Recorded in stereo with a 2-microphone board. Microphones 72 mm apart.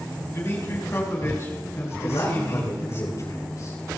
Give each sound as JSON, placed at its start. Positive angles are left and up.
{"t": 0.3, "sound": "a man speaking", "side_deg": 35, "distance_m": 5.5}
{"t": 2.0, "sound": "a man speaking", "side_deg": 50, "distance_m": 10.0}